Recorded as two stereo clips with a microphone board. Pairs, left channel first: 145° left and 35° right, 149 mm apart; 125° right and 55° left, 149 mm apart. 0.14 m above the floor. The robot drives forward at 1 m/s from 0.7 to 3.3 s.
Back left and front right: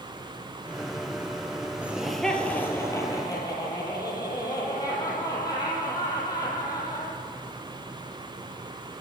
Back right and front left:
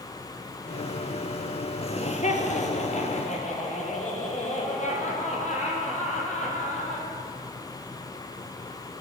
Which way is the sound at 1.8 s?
110° right.